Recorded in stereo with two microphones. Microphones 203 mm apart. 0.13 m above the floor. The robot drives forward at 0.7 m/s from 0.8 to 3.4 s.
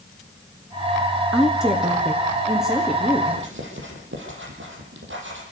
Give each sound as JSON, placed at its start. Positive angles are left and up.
{"t": 1.3, "sound": "a woman speaking", "side_deg": -5, "distance_m": 1.3}
{"t": 3.3, "sound": "writing", "side_deg": -70, "distance_m": 5.5}